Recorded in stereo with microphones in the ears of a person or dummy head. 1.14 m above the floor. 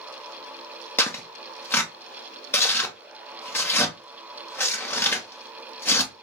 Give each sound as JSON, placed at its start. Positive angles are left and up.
{"t": 1.0, "sound": "tearing paper", "side_deg": 10, "distance_m": 0.8}